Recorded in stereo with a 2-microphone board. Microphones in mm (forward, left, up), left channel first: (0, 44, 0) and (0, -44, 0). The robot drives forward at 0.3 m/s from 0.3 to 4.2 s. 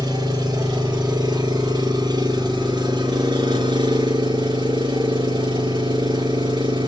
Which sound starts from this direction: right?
An engine running, at 0.0 s.